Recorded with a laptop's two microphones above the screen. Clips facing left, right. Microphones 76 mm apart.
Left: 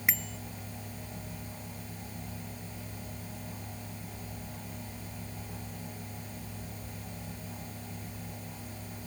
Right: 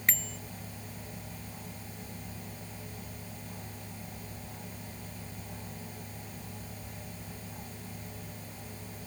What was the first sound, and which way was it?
A bicycle bell, 5° left (ahead or behind).